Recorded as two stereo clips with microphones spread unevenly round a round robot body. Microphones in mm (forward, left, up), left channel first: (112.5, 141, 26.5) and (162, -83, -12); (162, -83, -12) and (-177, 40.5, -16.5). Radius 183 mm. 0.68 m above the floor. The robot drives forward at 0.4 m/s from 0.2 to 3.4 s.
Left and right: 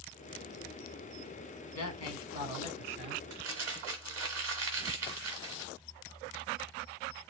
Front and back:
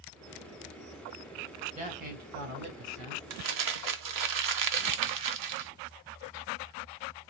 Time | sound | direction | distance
1.8 | a man speaking | 90° left | 1.9 m
3.3 | crumpling | 160° right | 0.9 m